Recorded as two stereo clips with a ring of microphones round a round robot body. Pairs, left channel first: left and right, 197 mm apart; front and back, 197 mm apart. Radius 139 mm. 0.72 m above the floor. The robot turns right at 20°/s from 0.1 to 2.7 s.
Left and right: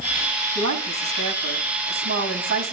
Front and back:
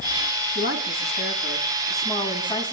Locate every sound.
0.6 s a woman speaking: 125° right, 6 m; by 2.7 s 80° right, 6 m